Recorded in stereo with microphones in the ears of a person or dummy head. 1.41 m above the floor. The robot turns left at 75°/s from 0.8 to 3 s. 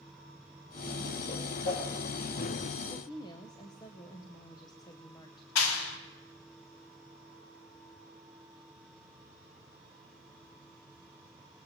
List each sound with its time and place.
1.3 s a whoosh: 30° left (ahead or behind), 5.5 m; by 1.9 s 70° left (ahead or behind), 5.5 m
2.9 s a woman speaking: 35° left (ahead or behind), 0.8 m; by 5.5 s 25° left (ahead or behind), 0.8 m
5.5 s a clap: 85° left, 1.3 m